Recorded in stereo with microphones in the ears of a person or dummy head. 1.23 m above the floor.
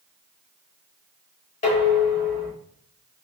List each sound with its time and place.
1.6 s dishes clattering: 30° left (ahead or behind), 4 m